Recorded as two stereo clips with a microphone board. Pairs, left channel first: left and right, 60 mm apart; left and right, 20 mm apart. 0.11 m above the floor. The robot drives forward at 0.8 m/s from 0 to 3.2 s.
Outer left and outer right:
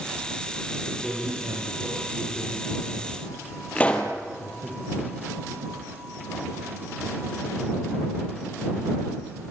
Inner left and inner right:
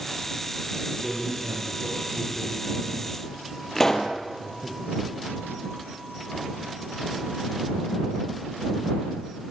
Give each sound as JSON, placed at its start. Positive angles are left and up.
{"t": 0.8, "sound": "a man speaking", "side_deg": -45, "distance_m": 8.0}
{"t": 3.8, "sound": "a pop", "side_deg": 20, "distance_m": 3.0}